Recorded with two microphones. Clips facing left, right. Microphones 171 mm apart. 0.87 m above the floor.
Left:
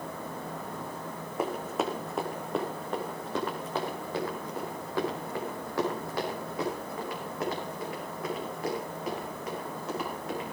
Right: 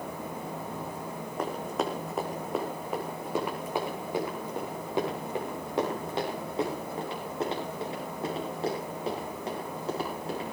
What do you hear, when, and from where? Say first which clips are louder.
1.4 s running footsteps: left 1 dB; 5° left (ahead or behind), 3 m; by 10.4 s 35° right (ahead or behind), 10.5 m